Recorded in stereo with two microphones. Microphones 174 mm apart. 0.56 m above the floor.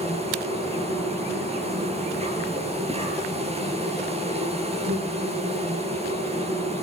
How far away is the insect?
About 8 m.